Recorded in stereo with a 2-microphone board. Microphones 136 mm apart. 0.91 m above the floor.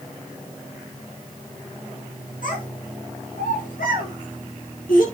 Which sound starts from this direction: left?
A child speaking, at 2.4 s.